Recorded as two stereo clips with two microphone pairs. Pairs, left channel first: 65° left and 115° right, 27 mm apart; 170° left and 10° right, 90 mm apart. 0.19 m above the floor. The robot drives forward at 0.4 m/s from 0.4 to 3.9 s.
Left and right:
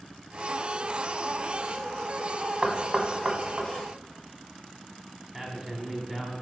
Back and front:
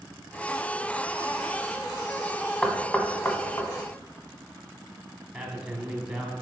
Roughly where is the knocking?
Right.